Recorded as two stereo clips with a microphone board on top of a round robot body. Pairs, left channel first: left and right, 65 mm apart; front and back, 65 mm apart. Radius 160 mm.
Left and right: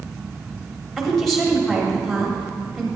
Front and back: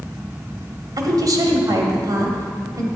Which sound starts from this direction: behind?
A woman speaking, at 1.0 s.